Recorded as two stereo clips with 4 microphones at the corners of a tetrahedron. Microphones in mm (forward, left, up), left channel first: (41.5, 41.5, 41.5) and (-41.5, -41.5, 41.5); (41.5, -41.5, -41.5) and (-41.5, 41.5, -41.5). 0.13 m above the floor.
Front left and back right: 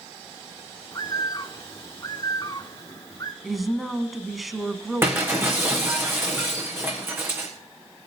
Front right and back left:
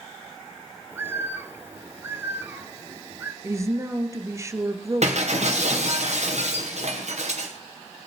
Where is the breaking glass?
155° left, 3 m.